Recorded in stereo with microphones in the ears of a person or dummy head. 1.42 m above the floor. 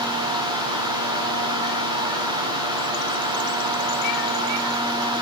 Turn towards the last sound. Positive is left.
No sound to turn to.